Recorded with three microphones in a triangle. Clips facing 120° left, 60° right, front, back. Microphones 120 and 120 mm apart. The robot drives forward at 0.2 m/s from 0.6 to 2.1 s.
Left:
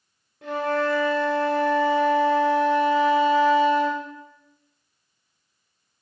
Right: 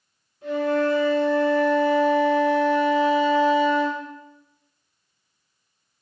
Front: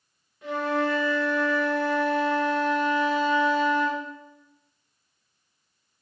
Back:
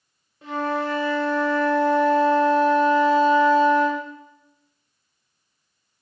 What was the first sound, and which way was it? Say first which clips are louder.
A flute: right 2 dB, even; 120° left.